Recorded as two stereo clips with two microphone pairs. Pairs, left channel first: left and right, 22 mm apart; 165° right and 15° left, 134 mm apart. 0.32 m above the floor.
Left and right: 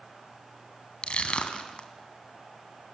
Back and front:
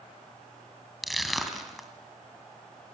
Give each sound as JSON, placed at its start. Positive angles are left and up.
{"t": 1.0, "sound": "crushing", "azimuth_deg": 105, "distance_m": 2.5}